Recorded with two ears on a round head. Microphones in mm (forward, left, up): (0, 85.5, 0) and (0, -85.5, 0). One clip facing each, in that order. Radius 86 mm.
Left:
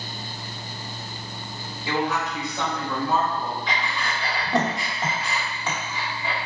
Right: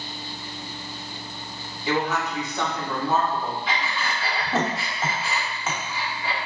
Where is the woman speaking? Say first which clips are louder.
Right 1 dB; 15° right (ahead or behind), 1.8 m.